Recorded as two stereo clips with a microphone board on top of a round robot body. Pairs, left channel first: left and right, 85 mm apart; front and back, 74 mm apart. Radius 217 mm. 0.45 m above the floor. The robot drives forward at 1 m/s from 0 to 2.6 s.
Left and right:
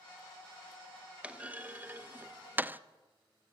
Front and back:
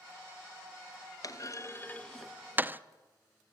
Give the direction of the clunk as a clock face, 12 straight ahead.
1 o'clock.